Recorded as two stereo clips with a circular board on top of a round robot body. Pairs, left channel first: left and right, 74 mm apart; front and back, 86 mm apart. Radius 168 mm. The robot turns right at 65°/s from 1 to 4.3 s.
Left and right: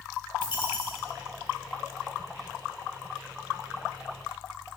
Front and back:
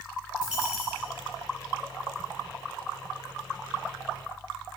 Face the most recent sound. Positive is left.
turn(degrees=-45)